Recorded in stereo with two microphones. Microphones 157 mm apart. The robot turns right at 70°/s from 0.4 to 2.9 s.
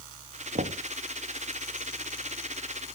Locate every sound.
0.6 s knocking: 65° right (ahead or behind), 1.1 m; by 0.8 s 80° right, 1.1 m